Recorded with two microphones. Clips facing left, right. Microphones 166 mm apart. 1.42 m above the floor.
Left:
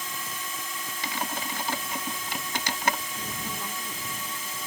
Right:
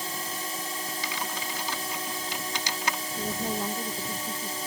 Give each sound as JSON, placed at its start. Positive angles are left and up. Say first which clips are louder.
{"t": 0.0, "sound": "a drone", "louder": "right 3 dB", "side_deg": -35}
{"t": 1.0, "sound": "typing on a keyboard", "louder": "left 1 dB", "side_deg": 55}
{"t": 3.2, "sound": "a woman speaking", "louder": "right 6 dB", "side_deg": -45}